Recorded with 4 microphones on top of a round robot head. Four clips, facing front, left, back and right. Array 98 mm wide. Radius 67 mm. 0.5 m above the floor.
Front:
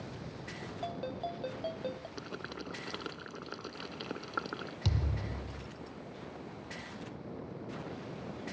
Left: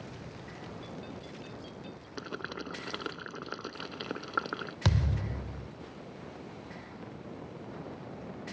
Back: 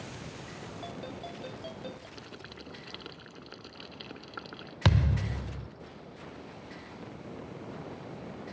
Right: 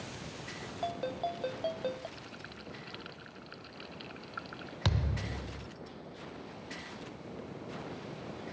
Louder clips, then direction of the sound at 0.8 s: Right 9 dB, front 5 dB; 70° right.